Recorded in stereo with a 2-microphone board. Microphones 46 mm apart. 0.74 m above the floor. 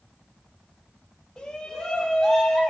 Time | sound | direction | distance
1.4 | a shout | 15° left (ahead or behind) | 2.5 m